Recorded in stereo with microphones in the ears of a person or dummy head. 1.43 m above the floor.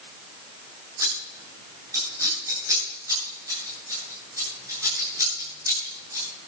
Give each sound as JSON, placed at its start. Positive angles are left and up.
{"t": 1.0, "sound": "scissors", "side_deg": -15, "distance_m": 9.5}